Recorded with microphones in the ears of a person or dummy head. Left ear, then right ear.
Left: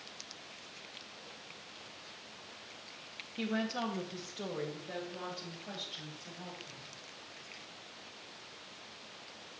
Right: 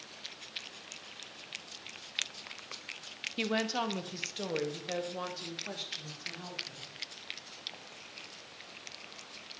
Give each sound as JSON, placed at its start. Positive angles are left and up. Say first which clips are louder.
{"t": 3.4, "sound": "a woman speaking", "louder": "right 4 dB", "side_deg": -70, "distance_m": 0.6}